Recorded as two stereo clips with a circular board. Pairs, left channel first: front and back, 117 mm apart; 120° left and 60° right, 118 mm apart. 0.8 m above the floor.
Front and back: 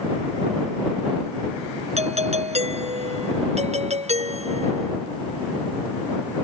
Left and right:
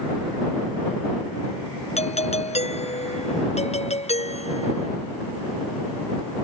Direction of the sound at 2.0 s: 150° left.